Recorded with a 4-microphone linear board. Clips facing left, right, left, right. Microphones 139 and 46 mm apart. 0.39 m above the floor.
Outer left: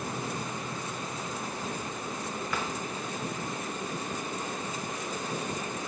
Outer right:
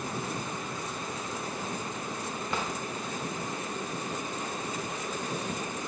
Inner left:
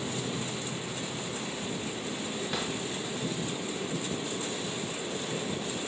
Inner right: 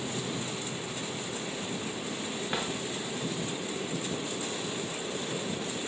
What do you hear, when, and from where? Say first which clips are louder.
2.5 s a drawer: outer right 2 dB, inner right 2 dB; 25° right (ahead or behind), 1.2 m